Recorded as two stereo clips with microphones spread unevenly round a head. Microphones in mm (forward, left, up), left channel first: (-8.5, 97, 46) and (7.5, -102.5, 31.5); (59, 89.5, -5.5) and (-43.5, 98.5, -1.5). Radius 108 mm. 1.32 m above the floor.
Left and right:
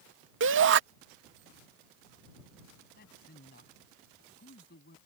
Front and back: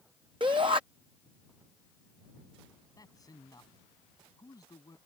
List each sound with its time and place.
0.4 s a shout: 115° right
3.0 s a man speaking: 50° left